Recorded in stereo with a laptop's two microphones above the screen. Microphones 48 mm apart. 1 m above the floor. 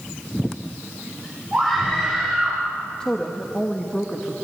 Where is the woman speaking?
20° left (ahead or behind), 1.0 m.